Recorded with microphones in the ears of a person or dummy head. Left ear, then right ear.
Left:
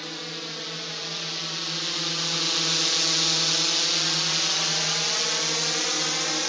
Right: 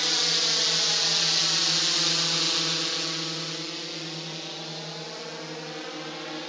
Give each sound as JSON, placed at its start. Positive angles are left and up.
{"t": 0.0, "sound": "a drone", "side_deg": -40}